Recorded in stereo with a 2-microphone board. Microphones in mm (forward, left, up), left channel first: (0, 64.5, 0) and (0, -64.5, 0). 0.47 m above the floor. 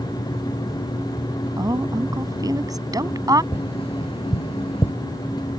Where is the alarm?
I don't hear an alarm.